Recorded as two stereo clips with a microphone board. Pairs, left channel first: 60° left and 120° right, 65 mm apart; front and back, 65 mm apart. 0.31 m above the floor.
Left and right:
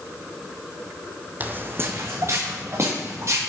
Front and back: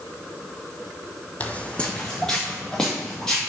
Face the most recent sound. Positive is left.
turn(degrees=-80)